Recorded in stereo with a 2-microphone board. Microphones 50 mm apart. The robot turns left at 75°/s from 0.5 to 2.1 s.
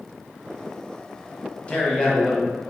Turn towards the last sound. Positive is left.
turn(degrees=20)  # may be behind; listen again after turning